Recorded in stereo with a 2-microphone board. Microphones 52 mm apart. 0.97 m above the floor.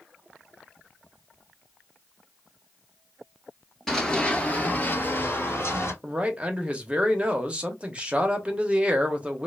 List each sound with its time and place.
3.9 s running footsteps: 5° left (ahead or behind), 1.1 m; by 5.9 s 55° left (ahead or behind), 1.7 m
6.0 s a man speaking: 20° right (ahead or behind), 0.8 m